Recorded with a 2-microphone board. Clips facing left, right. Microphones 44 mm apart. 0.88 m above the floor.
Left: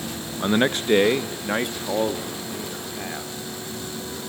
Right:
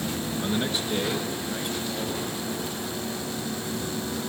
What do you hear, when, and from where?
0.4 s a man speaking: 35° left (ahead or behind), 0.5 m; by 3.3 s 70° left (ahead or behind), 2.5 m